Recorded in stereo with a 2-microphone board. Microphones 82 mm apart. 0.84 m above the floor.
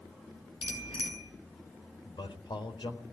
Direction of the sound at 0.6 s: 90° left.